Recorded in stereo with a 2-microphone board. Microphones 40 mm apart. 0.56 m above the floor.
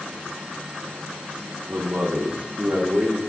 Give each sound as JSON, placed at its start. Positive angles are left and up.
{"t": 1.7, "sound": "a man speaking", "side_deg": -50, "distance_m": 0.9}